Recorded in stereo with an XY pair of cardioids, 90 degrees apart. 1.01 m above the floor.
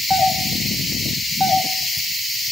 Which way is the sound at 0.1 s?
5° left.